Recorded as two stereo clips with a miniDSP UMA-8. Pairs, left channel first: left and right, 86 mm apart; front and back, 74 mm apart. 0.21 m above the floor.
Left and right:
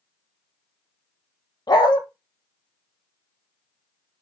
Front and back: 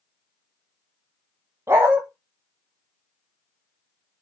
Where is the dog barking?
125° left, 1.6 m.